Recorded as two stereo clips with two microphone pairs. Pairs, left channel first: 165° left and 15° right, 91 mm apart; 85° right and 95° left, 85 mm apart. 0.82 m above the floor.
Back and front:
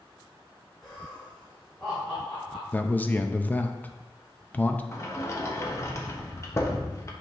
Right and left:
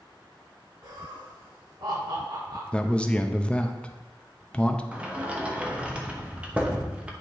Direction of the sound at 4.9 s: 155° left.